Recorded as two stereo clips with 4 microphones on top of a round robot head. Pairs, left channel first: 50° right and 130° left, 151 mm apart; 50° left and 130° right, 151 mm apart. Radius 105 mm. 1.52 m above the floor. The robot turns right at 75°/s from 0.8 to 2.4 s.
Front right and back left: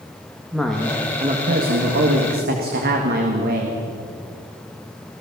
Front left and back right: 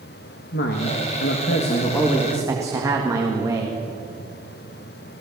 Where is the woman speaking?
40° left, 2 m; by 3.8 s 160° left, 2 m.